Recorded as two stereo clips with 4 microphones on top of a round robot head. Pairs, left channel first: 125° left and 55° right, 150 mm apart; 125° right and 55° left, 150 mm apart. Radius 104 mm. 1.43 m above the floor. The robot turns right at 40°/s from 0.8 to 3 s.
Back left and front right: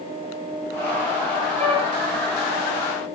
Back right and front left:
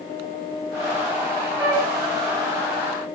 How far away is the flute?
About 4.5 m.